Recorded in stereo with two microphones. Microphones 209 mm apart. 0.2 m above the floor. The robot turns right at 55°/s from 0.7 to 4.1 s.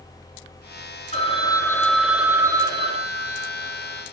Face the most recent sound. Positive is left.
turn(degrees=-70)